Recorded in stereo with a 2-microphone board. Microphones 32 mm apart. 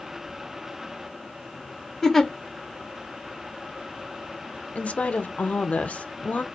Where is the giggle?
15° left (ahead or behind), 0.7 m.